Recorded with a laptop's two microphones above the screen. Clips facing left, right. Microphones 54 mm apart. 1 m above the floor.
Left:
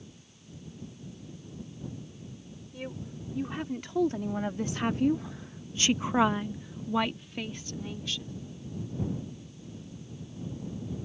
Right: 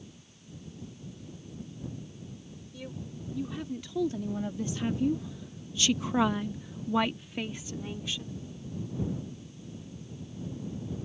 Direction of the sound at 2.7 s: 50° left (ahead or behind).